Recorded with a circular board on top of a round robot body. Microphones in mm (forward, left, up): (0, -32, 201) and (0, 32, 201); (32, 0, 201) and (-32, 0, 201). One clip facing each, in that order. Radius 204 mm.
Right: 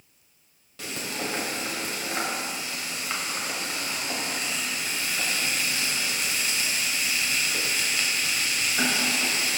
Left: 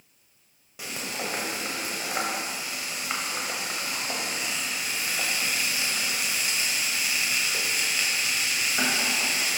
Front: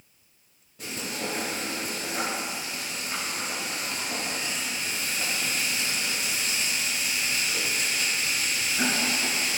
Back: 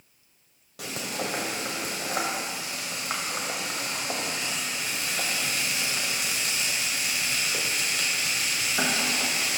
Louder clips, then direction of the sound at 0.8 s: Right 1 dB, back 1 dB; 165° left.